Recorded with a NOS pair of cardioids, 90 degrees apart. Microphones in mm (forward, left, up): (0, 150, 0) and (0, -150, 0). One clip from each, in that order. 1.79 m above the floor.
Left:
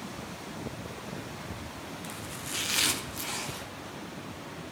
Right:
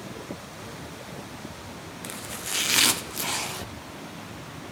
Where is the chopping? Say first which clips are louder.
Right 8 dB; 30° right, 1.0 m.